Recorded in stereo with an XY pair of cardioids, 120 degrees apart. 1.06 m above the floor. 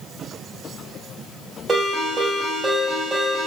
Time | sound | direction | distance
1.7 | a ringtone | 30° right | 1.6 m